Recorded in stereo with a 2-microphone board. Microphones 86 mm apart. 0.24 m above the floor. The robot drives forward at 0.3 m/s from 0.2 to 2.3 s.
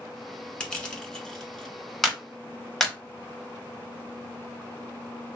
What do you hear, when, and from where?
0.6 s crushing: 10° left (ahead or behind), 0.8 m
2.0 s a clap: 5° left (ahead or behind), 0.7 m